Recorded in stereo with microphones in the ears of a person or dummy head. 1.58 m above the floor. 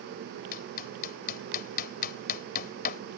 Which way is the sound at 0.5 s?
50° left (ahead or behind).